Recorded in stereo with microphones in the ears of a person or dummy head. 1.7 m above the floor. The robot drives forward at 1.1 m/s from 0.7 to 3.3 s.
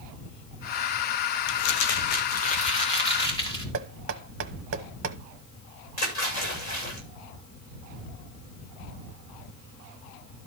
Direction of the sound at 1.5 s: 75° left (ahead or behind).